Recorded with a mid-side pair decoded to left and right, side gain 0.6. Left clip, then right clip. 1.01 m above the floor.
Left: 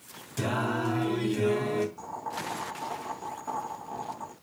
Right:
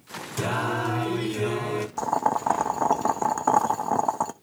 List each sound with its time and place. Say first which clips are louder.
0.4 s singing: right 3 dB; 25° right, 2.5 m
2.0 s boiling: right 12 dB; 70° right, 0.7 m